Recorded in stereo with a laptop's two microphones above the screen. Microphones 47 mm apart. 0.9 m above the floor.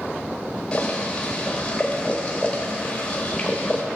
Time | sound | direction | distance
0.7 | boiling | 25° left (ahead or behind) | 1.7 m